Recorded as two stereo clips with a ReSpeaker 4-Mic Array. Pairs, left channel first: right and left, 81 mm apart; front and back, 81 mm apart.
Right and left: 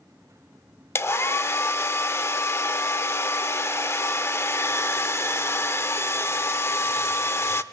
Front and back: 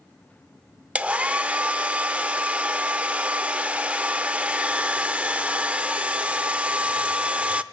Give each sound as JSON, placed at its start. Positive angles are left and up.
{"t": 0.9, "sound": "a hair dryer", "azimuth_deg": -120, "distance_m": 0.5}